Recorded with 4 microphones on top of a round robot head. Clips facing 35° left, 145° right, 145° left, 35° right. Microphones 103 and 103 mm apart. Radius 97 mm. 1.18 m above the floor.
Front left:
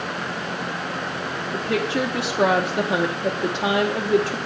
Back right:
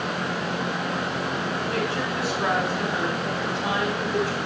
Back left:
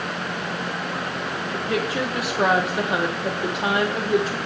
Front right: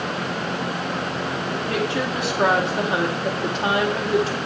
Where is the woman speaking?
60° left, 0.9 m.